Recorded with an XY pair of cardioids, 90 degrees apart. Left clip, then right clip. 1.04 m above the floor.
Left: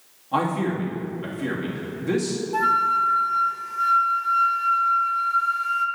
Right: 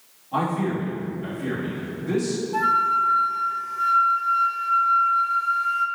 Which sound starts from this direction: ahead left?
A man speaking, at 0.3 s.